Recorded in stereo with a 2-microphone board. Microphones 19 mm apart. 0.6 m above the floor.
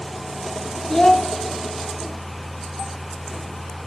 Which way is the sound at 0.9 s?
25° left (ahead or behind).